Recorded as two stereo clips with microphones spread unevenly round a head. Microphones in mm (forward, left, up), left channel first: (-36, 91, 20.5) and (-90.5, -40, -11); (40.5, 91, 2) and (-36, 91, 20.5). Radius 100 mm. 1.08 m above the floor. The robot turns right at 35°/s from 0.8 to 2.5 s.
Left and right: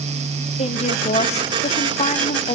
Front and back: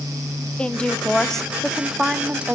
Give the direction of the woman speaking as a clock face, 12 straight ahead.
11 o'clock.